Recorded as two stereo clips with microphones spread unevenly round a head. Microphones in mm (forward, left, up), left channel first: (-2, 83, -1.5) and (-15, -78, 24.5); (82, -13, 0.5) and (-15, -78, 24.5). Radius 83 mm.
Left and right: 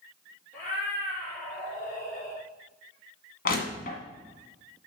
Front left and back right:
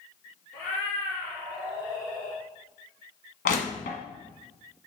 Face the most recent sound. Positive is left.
turn(degrees=45)